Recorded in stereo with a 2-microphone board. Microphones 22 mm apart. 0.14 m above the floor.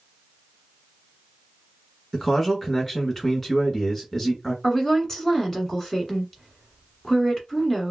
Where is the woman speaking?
30° left (ahead or behind), 1.4 m.